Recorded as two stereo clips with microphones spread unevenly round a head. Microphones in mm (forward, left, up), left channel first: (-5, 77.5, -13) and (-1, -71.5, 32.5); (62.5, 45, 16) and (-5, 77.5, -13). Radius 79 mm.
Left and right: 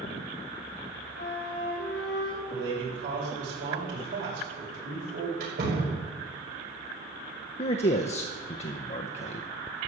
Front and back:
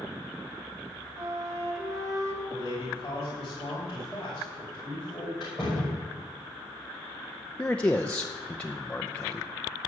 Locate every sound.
1.2 s a flute: 105° left, 2.5 m
2.5 s a man speaking: 100° right, 6 m
5.4 s a door slam: 110° right, 5 m
7.6 s a man speaking: 35° left, 0.7 m